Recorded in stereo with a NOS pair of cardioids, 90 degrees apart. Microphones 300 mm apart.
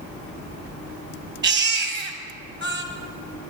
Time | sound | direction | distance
1.4 | a baby crying | 35° right | 1.6 m